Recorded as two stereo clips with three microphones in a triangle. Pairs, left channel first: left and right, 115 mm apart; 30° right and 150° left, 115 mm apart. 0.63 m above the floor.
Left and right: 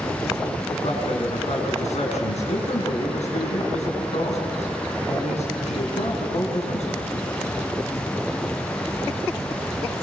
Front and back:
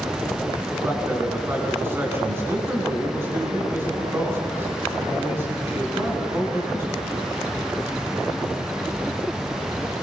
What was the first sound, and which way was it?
A man speaking, 80° left.